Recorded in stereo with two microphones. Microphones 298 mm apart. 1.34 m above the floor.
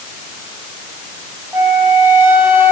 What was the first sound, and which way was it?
A flute, 10° right (ahead or behind).